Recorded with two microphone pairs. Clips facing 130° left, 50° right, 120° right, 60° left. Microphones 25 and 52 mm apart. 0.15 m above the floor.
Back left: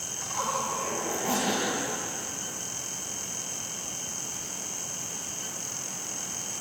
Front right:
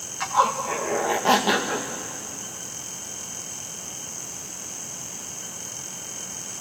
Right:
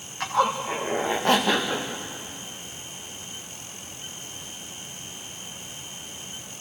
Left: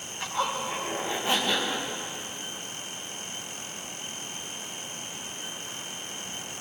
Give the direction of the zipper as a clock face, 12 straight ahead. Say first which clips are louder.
Front right 9 dB, right 6 dB; 3 o'clock.